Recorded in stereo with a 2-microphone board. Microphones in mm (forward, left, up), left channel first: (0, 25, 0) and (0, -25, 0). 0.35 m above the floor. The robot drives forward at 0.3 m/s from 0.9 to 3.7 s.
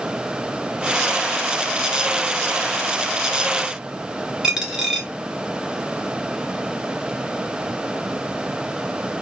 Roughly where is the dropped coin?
Centre.